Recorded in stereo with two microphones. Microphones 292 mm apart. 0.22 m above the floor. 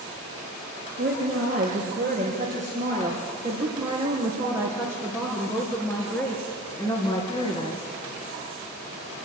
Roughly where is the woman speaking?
Right.